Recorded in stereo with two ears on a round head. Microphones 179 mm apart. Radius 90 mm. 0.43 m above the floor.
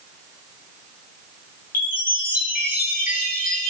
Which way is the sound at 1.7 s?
45° left (ahead or behind).